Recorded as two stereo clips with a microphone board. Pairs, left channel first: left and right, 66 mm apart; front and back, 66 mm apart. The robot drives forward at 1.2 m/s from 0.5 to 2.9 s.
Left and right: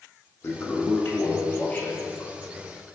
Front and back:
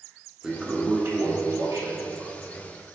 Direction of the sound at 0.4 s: 105° left.